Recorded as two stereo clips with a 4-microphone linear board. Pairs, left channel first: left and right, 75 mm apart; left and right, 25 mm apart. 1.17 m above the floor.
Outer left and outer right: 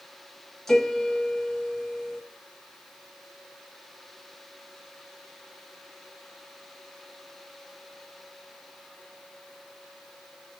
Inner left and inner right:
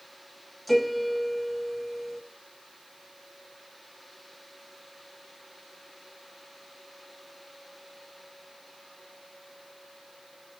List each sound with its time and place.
0.7 s a piano: 5° left (ahead or behind), 1.3 m